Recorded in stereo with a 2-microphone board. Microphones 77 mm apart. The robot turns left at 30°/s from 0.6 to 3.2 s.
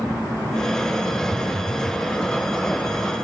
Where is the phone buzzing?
80° left; by 2.0 s 70° left (ahead or behind).